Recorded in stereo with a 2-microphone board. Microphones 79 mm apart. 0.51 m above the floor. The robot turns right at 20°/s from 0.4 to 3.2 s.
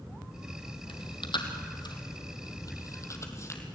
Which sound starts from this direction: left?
Chewing, at 0.9 s.